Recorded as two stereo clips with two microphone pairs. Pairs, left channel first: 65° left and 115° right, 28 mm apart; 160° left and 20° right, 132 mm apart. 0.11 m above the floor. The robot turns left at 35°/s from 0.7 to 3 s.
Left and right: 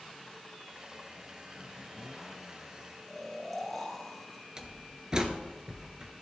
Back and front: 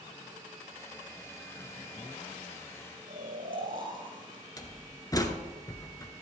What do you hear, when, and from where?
3.1 s snoring: 20° right, 3 m
4.6 s a door slam: 155° right, 1.1 m